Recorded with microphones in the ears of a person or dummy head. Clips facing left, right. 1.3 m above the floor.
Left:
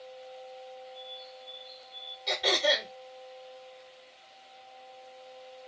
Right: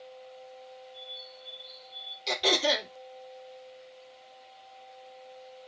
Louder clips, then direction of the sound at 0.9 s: Left 2 dB; 50° right (ahead or behind).